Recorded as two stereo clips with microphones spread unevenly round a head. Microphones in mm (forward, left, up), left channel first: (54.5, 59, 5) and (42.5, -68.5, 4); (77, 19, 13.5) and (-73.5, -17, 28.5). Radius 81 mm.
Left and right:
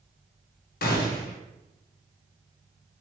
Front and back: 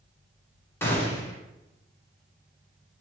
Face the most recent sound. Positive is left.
turn(degrees=90)